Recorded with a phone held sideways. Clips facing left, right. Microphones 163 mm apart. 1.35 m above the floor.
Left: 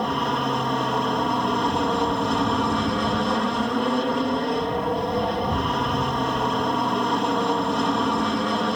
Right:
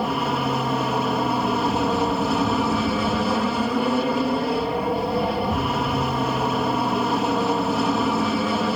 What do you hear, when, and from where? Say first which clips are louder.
0.0 s an aircraft: right 1 dB; 5° right (ahead or behind)